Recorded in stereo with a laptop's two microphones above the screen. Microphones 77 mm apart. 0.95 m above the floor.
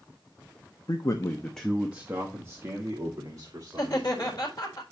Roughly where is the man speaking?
Left.